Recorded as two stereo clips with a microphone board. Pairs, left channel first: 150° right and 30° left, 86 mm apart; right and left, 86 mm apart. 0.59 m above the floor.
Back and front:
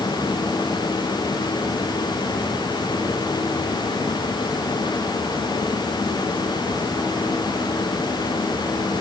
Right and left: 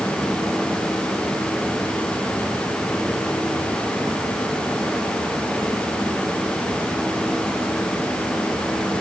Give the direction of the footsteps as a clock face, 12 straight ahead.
I don't hear footsteps.